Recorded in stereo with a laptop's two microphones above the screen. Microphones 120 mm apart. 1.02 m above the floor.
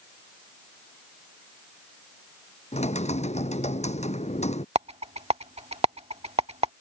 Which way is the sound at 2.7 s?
70° left (ahead or behind).